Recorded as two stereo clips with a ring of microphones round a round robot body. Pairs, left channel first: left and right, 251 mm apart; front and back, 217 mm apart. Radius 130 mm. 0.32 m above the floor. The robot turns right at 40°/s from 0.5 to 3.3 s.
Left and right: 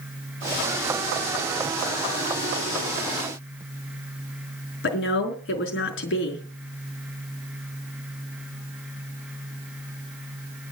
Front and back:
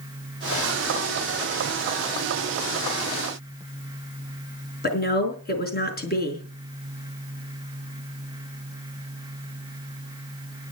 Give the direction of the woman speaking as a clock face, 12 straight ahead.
10 o'clock.